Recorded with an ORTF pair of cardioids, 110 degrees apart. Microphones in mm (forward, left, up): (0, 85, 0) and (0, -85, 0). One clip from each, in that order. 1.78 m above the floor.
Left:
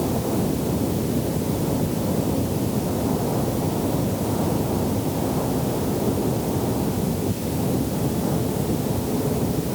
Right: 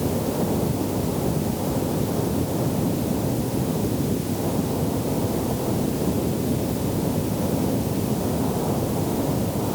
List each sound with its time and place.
Only background noise.